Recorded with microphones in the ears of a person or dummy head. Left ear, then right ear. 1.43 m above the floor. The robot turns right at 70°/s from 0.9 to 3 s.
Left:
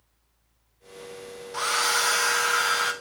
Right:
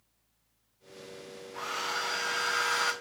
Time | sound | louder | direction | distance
1.5 | a hair dryer | left 9 dB | 80° left | 0.9 m